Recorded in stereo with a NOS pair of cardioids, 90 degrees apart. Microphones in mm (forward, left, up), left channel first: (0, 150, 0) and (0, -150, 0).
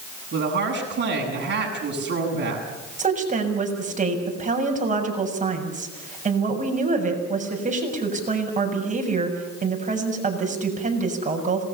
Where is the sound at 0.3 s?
35° right, 8 m.